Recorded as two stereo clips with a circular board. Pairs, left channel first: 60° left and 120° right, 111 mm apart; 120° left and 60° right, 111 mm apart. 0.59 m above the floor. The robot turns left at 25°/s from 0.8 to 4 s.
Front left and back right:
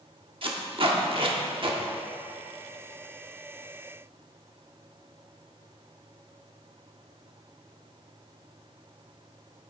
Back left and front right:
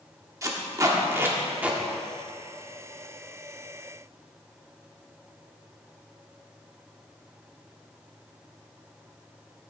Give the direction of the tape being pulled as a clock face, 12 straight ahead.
4 o'clock.